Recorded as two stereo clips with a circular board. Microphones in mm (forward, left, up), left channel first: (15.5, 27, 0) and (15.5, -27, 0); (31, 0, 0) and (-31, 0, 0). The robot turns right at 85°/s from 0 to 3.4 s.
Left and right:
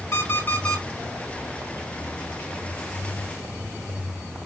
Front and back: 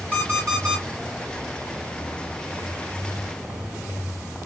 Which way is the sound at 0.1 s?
110° left.